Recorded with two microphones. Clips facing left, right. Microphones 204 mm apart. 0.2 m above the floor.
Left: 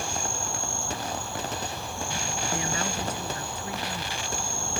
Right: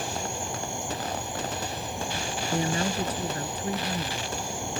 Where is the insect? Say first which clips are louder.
Right 1 dB; 20° right (ahead or behind).